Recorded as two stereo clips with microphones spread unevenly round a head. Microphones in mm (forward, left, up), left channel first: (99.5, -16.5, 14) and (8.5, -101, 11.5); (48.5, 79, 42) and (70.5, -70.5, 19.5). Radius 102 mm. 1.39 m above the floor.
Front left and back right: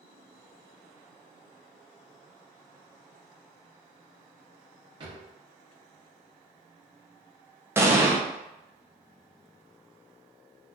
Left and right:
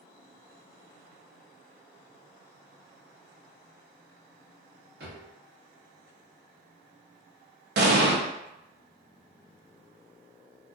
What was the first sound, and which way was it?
A drawer, 105° right.